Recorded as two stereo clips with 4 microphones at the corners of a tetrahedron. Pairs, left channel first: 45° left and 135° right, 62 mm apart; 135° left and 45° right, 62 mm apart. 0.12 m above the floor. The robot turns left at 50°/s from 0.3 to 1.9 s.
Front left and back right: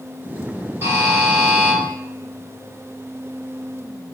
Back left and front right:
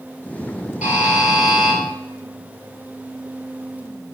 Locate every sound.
0.8 s a buzzer: 100° right, 1.2 m; by 1.8 s 150° right, 1.2 m